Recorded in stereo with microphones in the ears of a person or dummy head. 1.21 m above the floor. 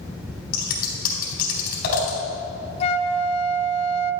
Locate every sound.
0.5 s scissors: 50° left (ahead or behind), 4 m
2.8 s a flute: 30° left (ahead or behind), 0.6 m